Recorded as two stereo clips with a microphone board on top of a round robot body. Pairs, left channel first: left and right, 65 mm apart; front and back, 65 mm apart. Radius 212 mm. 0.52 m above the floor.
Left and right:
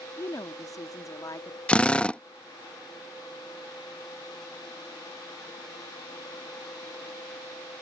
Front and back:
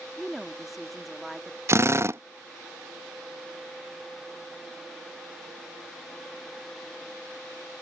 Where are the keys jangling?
I don't hear keys jangling.